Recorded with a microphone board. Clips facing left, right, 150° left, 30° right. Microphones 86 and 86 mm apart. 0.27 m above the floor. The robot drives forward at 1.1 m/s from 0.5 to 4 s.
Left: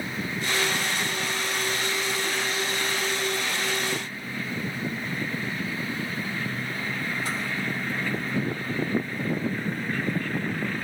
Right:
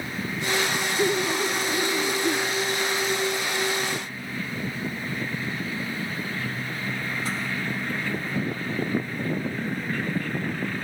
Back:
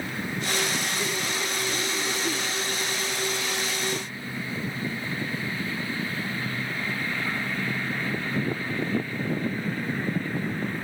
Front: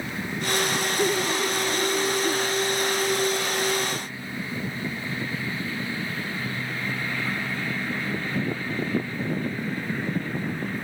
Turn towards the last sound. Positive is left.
turn(degrees=-145)